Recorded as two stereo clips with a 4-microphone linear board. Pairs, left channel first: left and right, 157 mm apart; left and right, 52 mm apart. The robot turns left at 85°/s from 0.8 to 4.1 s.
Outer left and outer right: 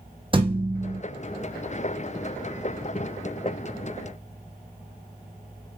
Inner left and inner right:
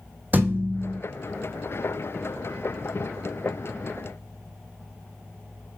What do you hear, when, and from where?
0.3 s a thud: 35° right (ahead or behind), 0.9 m; by 1.0 s 50° right (ahead or behind), 0.9 m